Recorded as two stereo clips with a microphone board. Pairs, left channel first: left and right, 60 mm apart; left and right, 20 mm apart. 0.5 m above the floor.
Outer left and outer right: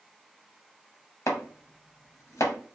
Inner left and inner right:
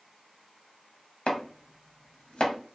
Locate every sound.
1.3 s chopping: 60° left (ahead or behind), 0.6 m